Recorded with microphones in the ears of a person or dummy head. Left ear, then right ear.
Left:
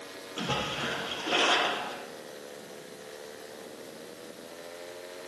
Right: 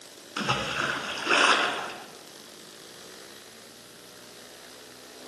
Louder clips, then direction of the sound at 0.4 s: Right 4 dB; 65° right (ahead or behind).